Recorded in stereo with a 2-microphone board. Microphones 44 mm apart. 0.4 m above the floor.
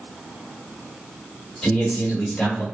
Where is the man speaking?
15° left (ahead or behind), 1.4 m.